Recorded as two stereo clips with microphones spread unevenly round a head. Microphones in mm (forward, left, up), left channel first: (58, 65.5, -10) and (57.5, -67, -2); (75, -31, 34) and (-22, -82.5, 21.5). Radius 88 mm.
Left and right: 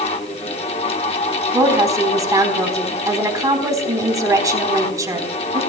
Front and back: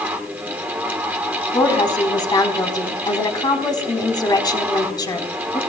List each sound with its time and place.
0.0 s a fan: 140° left, 1.2 m
1.5 s a woman speaking: 25° right, 4 m